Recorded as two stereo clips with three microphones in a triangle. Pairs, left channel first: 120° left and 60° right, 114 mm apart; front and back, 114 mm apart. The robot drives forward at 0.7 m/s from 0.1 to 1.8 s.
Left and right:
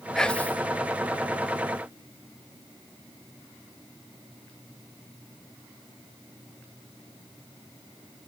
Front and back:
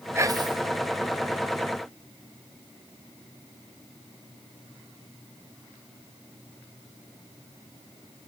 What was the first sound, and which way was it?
Whispering, 160° right.